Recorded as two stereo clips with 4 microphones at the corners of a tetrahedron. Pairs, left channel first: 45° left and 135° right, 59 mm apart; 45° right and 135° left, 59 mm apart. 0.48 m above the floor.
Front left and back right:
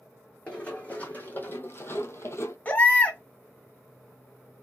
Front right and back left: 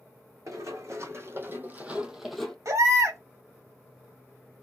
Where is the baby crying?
110° left, 0.9 m.